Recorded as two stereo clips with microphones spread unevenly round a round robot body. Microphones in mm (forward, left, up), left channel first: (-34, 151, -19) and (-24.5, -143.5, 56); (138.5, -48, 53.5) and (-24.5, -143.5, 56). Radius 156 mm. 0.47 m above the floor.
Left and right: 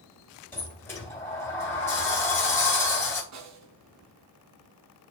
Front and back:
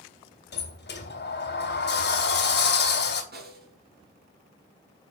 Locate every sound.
0.5 s a sliding door: 15° left, 3 m
3.3 s a snare drum: 120° right, 4 m